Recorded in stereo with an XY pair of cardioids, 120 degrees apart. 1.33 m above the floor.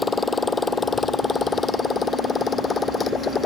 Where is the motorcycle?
20° left; by 3.5 s 30° left.